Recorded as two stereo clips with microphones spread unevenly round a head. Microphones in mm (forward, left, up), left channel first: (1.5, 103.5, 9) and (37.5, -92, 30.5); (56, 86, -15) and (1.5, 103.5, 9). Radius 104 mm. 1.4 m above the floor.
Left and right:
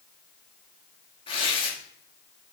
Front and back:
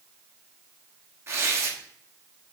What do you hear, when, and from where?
1.3 s tearing paper: 170° left, 1.4 m